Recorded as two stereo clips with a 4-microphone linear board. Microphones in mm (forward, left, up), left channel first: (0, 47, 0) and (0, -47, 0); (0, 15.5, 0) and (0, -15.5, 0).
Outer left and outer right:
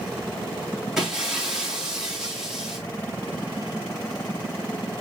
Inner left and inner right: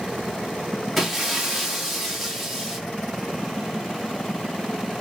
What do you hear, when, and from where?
1.0 s breaking glass: 5° right (ahead or behind), 1.6 m